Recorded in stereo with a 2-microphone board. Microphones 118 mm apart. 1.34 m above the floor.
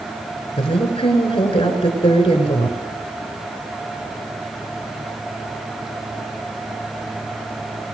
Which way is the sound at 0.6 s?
55° left (ahead or behind).